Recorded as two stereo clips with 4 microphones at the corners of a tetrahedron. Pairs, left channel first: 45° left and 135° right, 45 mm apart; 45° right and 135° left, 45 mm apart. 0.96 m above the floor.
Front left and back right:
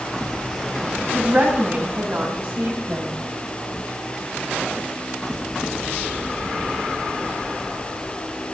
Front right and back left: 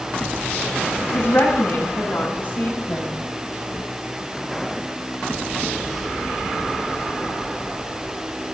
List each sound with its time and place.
1.1 s a woman speaking: 80° right, 6.5 m; by 3.1 s 100° right, 4.5 m